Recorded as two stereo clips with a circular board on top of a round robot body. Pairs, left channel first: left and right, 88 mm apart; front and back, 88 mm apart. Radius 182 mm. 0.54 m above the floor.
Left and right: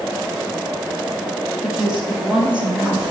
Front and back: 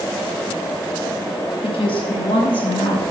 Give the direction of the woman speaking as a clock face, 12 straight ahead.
12 o'clock.